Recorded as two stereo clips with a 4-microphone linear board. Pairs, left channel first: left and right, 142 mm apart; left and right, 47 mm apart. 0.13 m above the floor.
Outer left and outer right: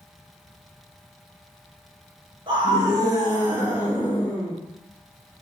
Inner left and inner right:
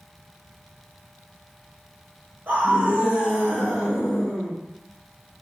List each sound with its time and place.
2.5 s a scream: 35° right (ahead or behind), 1.5 m; by 4.5 s 5° left (ahead or behind), 1.8 m